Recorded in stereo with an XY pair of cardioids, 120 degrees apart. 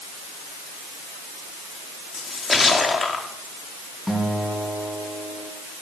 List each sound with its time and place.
2.1 s a splash: 25° left, 2.5 m
4.1 s a guitar: 5° left, 4.5 m